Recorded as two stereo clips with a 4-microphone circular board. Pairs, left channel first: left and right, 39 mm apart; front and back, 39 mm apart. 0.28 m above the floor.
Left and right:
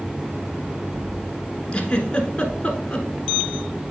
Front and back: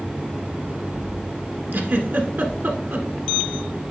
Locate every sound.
1.7 s a giggle: 150° left, 1.3 m